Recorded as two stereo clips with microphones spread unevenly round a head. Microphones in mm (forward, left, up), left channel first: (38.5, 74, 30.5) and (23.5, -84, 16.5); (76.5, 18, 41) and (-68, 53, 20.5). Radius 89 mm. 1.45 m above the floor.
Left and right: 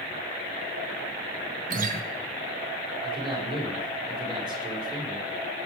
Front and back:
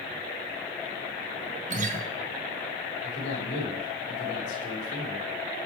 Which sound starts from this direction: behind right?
A guitar, at 1.7 s.